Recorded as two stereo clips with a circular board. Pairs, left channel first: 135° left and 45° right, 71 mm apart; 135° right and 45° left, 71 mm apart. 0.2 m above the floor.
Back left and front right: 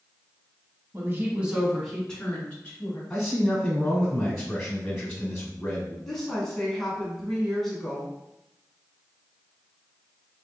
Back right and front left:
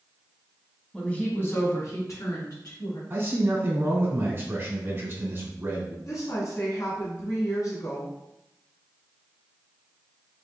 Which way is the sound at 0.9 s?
65° right.